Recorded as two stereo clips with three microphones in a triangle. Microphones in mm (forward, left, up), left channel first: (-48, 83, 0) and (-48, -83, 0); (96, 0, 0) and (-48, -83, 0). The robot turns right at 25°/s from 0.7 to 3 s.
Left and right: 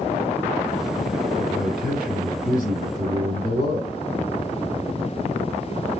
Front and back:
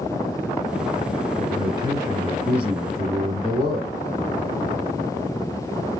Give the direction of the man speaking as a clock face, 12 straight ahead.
3 o'clock.